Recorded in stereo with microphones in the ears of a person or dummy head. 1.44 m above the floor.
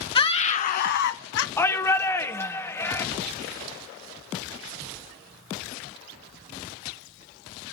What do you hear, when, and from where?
0.1 s a scream: 30° left (ahead or behind), 0.8 m; by 1.5 s 75° left (ahead or behind), 0.8 m
1.6 s a shout: 15° left (ahead or behind), 0.8 m